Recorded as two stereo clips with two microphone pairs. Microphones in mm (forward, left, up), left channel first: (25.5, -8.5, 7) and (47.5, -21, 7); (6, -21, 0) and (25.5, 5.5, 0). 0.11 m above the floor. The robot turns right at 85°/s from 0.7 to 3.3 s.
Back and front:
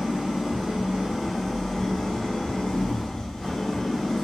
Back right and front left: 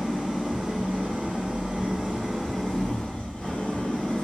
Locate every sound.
0.0 s an engine running: 5° left, 1.1 m; by 4.2 s 135° right, 1.1 m